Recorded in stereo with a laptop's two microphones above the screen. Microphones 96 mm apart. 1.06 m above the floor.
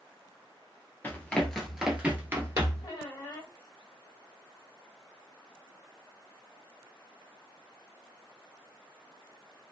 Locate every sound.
1.0 s running footsteps: 20° left (ahead or behind), 1.1 m; by 2.9 s 40° right (ahead or behind), 1.3 m
2.8 s a squeak: 50° left (ahead or behind), 1.6 m